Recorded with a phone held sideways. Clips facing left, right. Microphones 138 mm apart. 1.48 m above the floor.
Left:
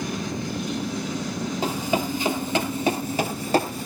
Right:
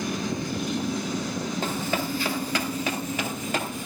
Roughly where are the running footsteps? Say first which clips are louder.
Left 6 dB; centre.